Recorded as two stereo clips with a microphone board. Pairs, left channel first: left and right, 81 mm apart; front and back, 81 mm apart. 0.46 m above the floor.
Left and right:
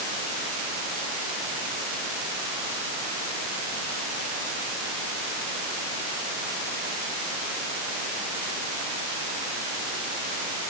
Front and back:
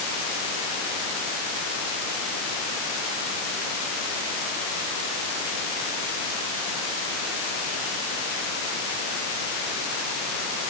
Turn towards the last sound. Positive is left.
No sound to turn to.